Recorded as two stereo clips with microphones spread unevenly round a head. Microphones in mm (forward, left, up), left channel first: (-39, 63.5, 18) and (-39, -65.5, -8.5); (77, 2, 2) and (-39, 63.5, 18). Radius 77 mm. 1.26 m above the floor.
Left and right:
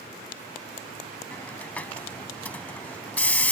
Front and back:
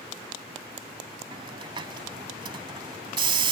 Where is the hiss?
145° left.